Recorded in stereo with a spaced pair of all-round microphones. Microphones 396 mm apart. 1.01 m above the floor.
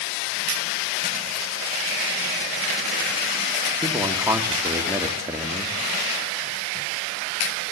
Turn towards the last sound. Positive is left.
turn(degrees=-5)  # may be behind; listen again after turning